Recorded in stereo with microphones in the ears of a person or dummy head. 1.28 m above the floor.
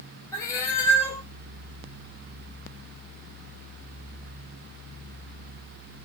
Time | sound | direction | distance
0.3 | a cat meowing | 20° left (ahead or behind) | 0.9 m